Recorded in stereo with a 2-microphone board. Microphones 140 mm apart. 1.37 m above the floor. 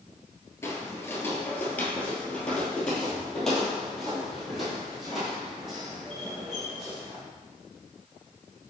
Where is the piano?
I don't hear a piano.